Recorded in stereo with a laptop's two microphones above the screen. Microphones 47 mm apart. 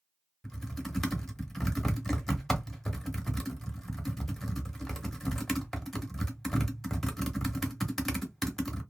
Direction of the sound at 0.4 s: 5° left (ahead or behind).